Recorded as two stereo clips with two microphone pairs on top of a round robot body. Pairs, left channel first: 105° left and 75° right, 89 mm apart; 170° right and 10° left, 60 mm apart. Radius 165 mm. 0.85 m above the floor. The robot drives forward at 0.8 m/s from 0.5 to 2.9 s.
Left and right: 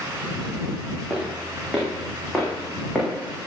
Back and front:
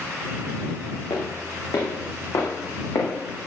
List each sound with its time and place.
1.1 s footsteps: 160° right, 5 m; by 3.5 s 165° right, 4.5 m